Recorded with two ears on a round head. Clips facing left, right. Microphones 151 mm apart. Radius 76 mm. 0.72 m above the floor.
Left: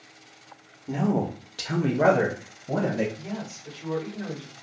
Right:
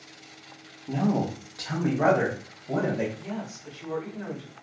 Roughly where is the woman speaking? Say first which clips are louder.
Even; centre.